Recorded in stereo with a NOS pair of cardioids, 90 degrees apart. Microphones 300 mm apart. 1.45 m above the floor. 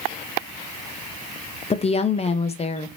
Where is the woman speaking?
20° left, 0.6 m.